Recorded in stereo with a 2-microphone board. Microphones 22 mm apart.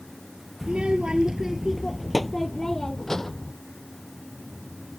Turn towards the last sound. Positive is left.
turn(degrees=25)  # may be behind; listen again after turning